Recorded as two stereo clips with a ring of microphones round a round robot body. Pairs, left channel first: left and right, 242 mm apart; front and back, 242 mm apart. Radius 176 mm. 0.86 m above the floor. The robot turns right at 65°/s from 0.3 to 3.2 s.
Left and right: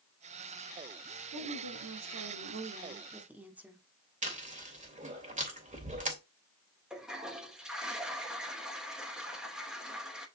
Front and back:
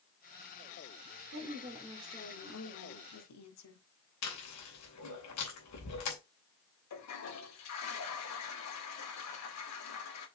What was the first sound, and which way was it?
A woman speaking, 130° right.